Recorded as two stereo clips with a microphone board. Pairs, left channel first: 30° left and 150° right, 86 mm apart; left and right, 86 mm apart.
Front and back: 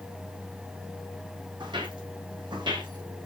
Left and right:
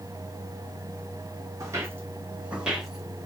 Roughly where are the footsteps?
Behind right.